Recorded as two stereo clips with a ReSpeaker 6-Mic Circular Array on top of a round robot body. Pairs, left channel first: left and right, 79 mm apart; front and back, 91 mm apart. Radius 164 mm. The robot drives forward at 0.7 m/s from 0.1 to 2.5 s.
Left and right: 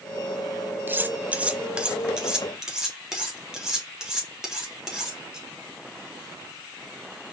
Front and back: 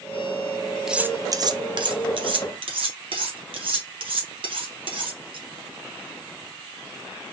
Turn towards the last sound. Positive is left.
turn(degrees=-170)